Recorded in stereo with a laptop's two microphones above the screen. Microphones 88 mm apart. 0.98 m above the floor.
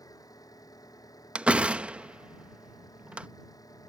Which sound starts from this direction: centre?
A door slam, at 1.4 s.